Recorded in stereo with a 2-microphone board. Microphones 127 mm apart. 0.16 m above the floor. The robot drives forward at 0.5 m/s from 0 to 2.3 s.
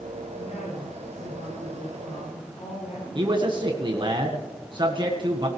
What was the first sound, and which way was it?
A woman speaking, 55° left (ahead or behind).